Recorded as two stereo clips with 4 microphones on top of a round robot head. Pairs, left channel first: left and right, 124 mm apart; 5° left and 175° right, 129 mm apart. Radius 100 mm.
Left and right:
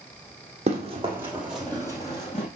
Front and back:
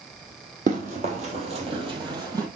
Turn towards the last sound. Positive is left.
turn(degrees=130)